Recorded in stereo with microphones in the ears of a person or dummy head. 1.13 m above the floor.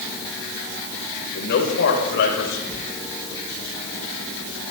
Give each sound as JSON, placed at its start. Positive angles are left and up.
{"t": 1.4, "sound": "a man speaking", "side_deg": 65, "distance_m": 4.5}
{"t": 2.7, "sound": "a sliding door", "side_deg": 5, "distance_m": 5.0}